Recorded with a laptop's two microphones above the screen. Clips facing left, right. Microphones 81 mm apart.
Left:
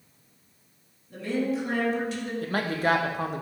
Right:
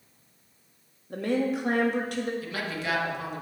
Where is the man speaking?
45° left (ahead or behind), 0.8 m.